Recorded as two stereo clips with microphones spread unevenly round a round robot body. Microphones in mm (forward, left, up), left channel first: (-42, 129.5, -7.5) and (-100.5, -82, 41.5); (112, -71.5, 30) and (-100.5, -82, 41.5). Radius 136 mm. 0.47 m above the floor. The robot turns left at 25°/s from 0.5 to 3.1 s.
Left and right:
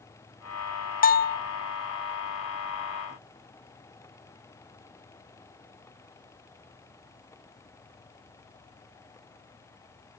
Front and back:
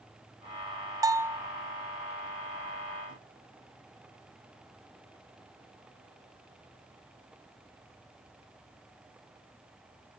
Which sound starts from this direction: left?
A bell, at 1.0 s.